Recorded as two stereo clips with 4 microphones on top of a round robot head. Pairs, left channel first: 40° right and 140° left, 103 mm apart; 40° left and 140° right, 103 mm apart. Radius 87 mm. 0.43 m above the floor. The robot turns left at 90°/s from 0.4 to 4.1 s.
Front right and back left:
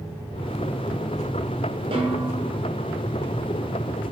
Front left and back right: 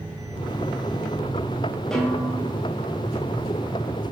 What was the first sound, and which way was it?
A snare drum, 125° left.